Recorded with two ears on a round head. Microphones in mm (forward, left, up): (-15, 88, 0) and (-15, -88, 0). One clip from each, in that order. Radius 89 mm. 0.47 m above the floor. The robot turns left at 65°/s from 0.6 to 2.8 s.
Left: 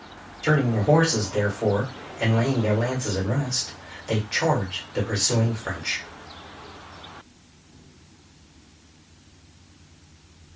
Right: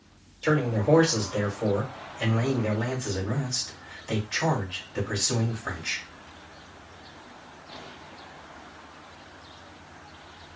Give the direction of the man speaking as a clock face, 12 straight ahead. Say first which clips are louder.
Left 3 dB; 2 o'clock.